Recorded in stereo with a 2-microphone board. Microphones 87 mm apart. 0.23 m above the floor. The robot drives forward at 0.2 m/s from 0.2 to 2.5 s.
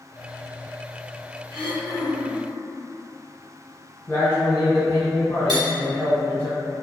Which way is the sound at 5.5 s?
55° right (ahead or behind).